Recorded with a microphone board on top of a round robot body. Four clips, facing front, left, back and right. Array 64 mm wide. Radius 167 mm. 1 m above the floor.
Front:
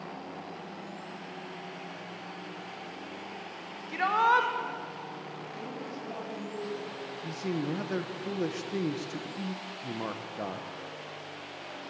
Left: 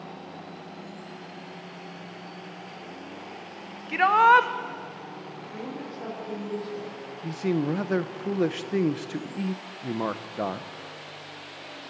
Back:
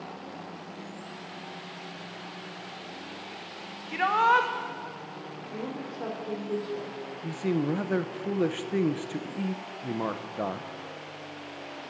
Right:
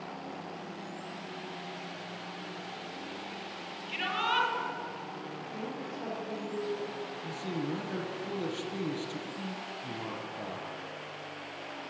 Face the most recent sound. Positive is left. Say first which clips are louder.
# left 11 dB, back 5 dB
turn(degrees=115)